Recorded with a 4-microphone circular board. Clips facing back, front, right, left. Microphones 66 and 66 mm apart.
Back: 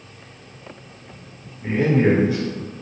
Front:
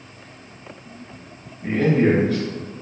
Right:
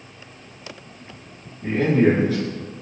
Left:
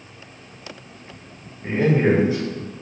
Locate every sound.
1.6 s a man speaking: 125° left, 1.6 m